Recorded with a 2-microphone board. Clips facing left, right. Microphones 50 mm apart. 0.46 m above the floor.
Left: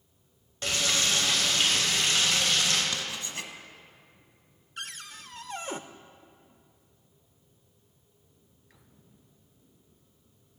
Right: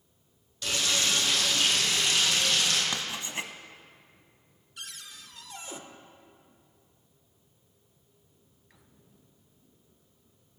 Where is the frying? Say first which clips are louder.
Left 1 dB; 40° left (ahead or behind), 3 m.